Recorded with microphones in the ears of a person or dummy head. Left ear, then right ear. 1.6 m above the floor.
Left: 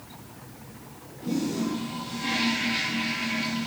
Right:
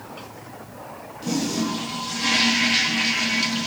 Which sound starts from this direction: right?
A toilet flushing, at 1.2 s.